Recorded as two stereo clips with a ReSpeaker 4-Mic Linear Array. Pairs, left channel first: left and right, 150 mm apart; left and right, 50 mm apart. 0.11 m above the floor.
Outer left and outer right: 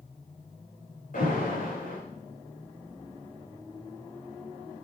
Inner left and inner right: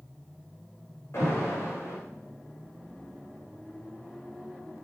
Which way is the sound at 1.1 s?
65° left (ahead or behind).